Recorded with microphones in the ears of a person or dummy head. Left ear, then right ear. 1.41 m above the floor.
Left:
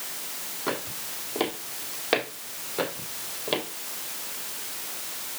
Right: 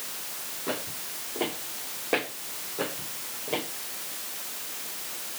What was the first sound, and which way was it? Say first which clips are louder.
Footsteps: left 2 dB; 60° left (ahead or behind).